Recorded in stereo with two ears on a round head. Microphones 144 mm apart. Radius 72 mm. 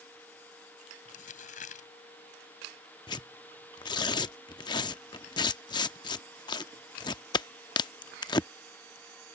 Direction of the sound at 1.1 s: 55° left (ahead or behind).